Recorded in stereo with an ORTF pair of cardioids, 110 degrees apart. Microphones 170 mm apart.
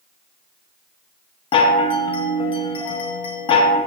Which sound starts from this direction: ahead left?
A chime, at 1.5 s.